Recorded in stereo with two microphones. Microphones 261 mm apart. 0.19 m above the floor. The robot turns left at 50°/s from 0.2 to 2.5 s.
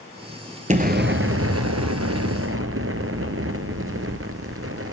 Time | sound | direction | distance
0.7 | an explosion | 30° right | 1.0 m